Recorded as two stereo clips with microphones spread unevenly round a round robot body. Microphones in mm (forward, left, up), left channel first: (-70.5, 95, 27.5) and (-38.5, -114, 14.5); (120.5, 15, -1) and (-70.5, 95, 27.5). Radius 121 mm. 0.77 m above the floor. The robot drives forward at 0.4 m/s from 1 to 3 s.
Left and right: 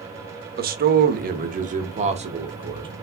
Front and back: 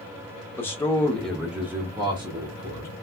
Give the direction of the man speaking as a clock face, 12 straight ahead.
3 o'clock.